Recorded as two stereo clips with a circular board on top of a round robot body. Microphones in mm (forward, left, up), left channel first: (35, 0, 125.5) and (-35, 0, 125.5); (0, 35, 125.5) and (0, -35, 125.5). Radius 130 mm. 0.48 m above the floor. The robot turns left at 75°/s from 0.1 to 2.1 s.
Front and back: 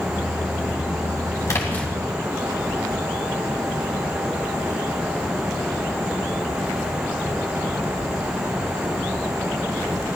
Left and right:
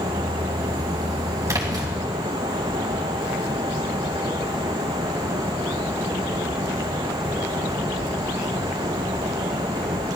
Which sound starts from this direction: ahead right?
A splash, at 1.5 s.